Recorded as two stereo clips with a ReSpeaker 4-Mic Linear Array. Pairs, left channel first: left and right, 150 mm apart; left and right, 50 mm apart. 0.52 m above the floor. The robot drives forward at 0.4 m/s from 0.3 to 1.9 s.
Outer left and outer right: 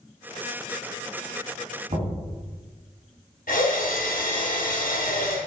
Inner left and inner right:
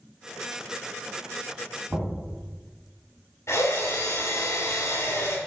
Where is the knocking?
55° right (ahead or behind), 2 m.